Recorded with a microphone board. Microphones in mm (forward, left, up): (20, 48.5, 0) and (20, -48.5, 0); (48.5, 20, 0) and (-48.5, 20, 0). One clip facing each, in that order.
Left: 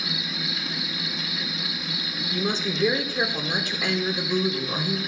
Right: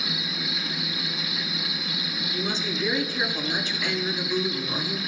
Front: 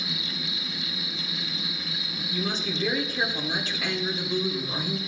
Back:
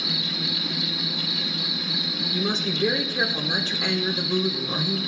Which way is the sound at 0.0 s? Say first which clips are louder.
Even, back 4 dB; straight behind.